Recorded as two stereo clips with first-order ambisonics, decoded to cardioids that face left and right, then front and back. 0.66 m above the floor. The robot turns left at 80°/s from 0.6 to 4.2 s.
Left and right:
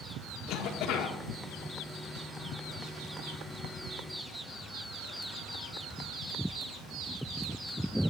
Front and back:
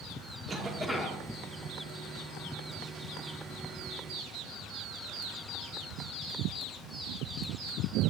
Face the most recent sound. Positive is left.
turn(degrees=-170)